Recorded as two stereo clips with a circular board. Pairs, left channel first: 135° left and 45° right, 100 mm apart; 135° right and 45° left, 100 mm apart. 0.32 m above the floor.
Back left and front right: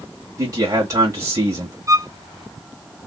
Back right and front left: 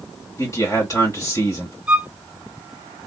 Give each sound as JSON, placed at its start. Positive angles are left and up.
{"t": 0.4, "sound": "a man speaking", "azimuth_deg": -90, "distance_m": 1.4}
{"t": 1.9, "sound": "a violin", "azimuth_deg": -30, "distance_m": 0.7}